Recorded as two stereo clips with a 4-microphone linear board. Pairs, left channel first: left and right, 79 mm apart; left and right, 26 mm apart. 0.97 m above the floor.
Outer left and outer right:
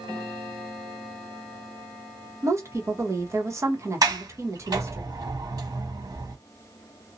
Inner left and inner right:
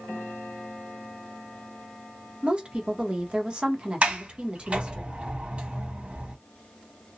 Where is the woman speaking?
35° right (ahead or behind), 1.1 m.